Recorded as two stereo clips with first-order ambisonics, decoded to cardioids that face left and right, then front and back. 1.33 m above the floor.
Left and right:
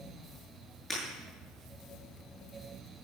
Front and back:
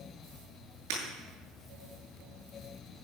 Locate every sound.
0.9 s breaking glass: 175° left, 8.5 m